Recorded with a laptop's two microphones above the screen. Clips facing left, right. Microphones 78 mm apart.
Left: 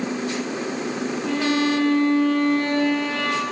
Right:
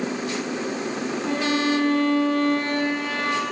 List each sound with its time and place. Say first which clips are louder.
1.3 s a violin: left 2 dB; 35° right (ahead or behind), 4.5 m